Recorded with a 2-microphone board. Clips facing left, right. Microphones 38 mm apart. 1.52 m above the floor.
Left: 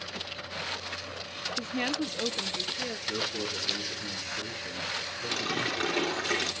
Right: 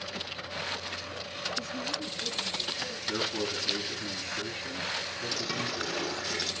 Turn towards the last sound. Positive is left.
turn(degrees=50)  # may be behind; listen again after turning